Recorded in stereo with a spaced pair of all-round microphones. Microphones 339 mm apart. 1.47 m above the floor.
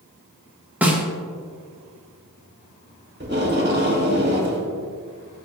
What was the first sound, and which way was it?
A snare drum, 5° right (ahead or behind).